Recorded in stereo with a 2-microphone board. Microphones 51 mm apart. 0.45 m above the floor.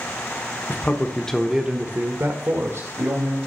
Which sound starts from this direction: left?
A man speaking, at 0.7 s.